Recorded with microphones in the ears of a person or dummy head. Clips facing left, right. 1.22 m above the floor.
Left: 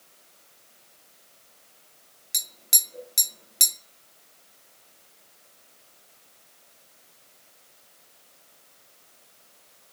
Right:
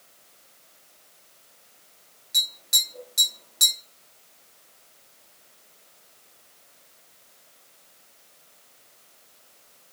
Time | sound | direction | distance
2.3 | tapping | 25° left (ahead or behind) | 0.5 m